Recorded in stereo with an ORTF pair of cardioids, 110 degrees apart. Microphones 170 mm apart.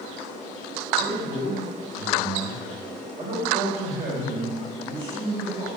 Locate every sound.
1.0 s a man speaking: 35° right, 3 m